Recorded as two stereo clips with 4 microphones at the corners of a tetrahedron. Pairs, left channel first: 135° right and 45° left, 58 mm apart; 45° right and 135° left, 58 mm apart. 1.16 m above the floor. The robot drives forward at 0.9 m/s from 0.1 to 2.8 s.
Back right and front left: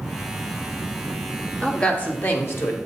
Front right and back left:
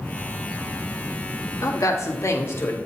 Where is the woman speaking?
60° right, 1.8 m; by 2.8 s 95° right, 1.6 m.